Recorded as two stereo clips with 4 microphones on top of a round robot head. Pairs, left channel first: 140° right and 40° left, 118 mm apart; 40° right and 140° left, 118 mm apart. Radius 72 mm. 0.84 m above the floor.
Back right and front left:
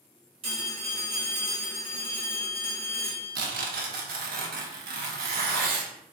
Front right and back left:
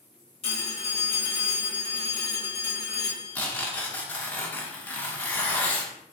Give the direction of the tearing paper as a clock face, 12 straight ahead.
11 o'clock.